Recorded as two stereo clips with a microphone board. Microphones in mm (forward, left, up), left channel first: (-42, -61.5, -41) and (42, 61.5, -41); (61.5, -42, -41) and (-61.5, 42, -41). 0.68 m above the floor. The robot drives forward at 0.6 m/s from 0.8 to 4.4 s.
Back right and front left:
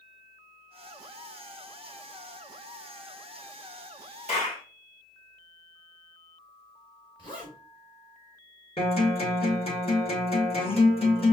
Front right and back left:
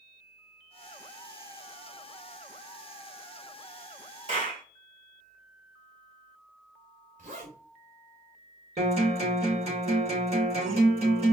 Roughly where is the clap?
Behind.